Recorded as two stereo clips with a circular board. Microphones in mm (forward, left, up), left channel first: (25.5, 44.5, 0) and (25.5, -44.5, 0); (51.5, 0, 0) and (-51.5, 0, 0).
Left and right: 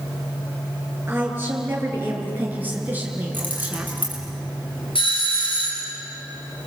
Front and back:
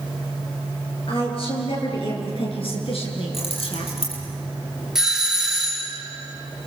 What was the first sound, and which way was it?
A woman speaking, 25° right.